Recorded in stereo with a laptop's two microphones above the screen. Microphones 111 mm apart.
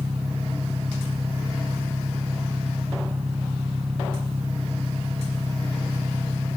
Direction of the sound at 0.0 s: 75° right (ahead or behind).